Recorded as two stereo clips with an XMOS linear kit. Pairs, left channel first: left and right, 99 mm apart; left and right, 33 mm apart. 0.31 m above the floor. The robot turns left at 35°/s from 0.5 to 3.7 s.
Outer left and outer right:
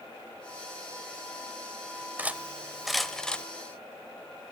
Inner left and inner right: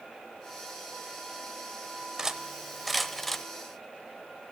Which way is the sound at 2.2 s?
15° right (ahead or behind).